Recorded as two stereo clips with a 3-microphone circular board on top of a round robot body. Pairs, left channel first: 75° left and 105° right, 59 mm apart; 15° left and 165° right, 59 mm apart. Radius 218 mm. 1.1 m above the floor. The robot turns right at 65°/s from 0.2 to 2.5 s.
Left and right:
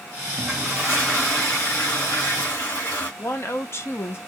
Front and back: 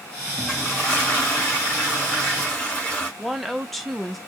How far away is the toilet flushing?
About 1.5 m.